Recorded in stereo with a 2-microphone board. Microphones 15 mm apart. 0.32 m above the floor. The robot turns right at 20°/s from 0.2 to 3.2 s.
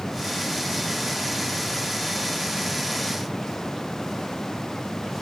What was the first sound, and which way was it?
Only background noise.